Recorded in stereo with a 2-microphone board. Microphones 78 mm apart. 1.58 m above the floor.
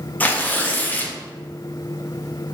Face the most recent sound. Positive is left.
turn(degrees=20)  # may be behind; listen again after turning